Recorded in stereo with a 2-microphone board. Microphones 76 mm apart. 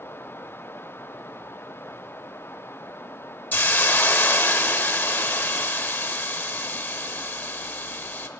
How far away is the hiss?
About 0.5 m.